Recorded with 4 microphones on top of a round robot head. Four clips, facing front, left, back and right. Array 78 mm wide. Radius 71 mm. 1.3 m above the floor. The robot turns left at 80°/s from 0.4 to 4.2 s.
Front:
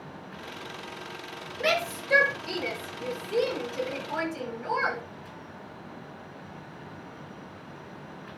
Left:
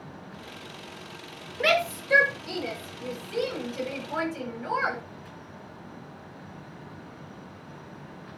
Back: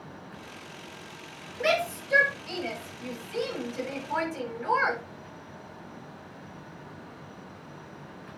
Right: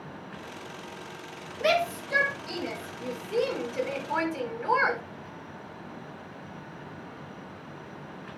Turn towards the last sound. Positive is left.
turn(degrees=-115)